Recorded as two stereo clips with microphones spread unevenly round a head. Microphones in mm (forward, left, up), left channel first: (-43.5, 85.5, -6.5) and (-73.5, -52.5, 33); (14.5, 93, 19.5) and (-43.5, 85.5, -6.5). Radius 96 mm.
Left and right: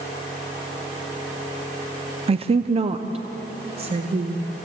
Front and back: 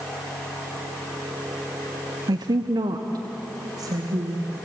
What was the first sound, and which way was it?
A woman speaking, 150° right.